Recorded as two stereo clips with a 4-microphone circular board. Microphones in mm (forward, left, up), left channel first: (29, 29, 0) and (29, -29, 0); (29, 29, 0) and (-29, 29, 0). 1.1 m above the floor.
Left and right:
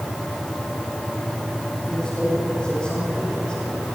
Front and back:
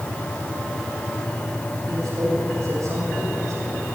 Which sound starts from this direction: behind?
A man speaking, at 1.9 s.